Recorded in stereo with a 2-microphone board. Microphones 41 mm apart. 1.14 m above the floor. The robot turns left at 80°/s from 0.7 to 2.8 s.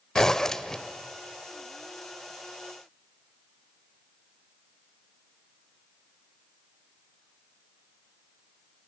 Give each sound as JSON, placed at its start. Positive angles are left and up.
{"t": 0.1, "sound": "a zipper", "side_deg": 15, "distance_m": 0.9}